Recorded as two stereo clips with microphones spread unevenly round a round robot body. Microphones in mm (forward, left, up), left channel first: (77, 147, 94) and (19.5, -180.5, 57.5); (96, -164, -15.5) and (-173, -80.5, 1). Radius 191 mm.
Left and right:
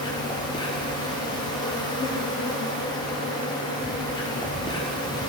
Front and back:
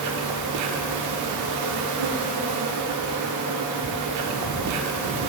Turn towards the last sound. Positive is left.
turn(degrees=160)